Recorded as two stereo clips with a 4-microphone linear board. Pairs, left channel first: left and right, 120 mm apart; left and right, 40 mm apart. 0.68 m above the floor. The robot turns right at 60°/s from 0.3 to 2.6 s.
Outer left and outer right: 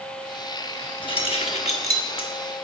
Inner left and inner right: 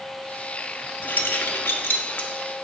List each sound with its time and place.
1.0 s keys jangling: 40° left (ahead or behind), 0.9 m; by 2.3 s 45° left (ahead or behind), 0.9 m